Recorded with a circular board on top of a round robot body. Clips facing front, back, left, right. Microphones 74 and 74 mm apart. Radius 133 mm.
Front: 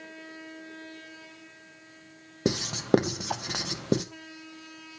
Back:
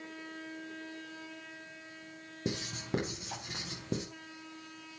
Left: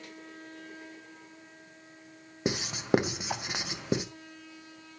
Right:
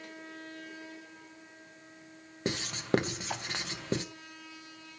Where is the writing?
15° left, 1.1 m.